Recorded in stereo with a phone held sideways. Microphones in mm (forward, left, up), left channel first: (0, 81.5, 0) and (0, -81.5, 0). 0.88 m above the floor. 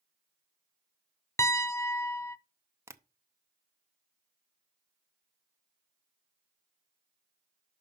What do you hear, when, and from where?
1.4 s a piano: 20° left (ahead or behind), 0.6 m
2.9 s tapping: 15° right (ahead or behind), 0.6 m